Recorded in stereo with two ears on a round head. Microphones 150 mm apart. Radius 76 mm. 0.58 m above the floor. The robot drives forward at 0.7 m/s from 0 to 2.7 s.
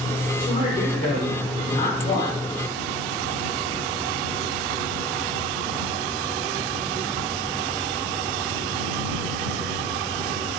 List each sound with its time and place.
0.4 s a man speaking: 65° left (ahead or behind), 1.8 m; by 2.4 s 40° left (ahead or behind), 2.5 m